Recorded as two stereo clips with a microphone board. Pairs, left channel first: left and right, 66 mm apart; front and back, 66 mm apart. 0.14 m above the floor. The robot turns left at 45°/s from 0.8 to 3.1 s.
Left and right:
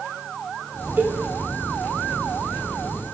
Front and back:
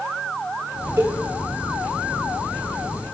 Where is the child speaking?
I don't hear a child speaking.